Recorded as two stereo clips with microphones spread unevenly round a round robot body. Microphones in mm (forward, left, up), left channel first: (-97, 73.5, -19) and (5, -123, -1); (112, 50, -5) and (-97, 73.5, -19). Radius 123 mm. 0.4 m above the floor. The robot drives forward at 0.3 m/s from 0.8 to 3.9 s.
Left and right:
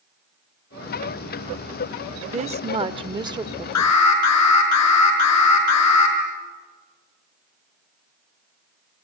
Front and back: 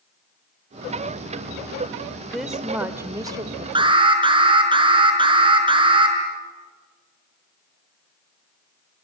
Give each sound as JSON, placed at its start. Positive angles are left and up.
{"t": 2.3, "sound": "a woman speaking", "azimuth_deg": -95, "distance_m": 0.9}
{"t": 3.8, "sound": "an alarm", "azimuth_deg": 105, "distance_m": 4.5}